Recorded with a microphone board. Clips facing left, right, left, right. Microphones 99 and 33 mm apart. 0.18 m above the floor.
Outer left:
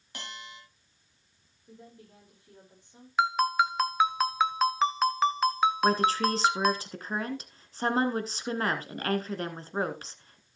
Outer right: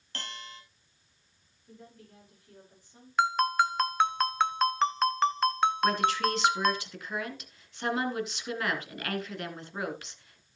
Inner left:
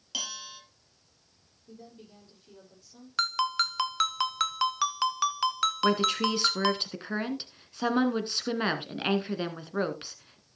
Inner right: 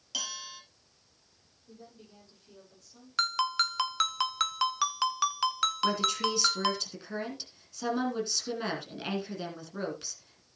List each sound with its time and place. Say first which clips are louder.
0.1 s a bell: even, inner left 1 dB; 10° left (ahead or behind), 4 m
1.7 s a woman speaking: outer left 1 dB, inner left 3 dB; 25° left (ahead or behind), 6.5 m
3.2 s a ringtone: even, inner left 1 dB; 5° left (ahead or behind), 0.6 m
5.8 s a woman speaking: outer left 3 dB, inner left 4 dB; 35° left (ahead or behind), 1.7 m